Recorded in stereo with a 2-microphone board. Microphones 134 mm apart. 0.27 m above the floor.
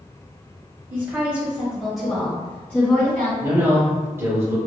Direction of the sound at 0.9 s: 15° right (ahead or behind).